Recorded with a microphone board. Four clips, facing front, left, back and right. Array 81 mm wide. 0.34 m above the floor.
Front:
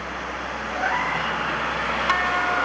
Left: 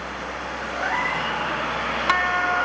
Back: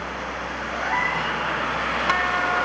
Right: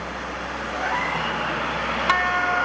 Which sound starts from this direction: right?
A cat meowing, at 0.7 s.